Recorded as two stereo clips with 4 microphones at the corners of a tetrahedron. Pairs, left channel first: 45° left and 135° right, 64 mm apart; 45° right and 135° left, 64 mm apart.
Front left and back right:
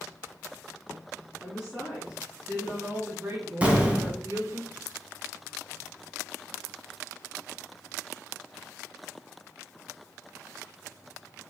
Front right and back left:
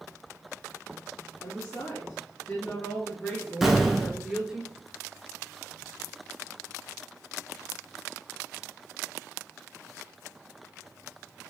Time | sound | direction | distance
1.4 | a woman speaking | 55° right | 1.8 m
3.6 | an explosion | 150° right | 0.8 m